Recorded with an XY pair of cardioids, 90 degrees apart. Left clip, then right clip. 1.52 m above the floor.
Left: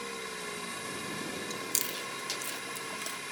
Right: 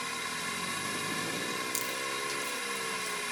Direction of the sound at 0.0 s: 35° right.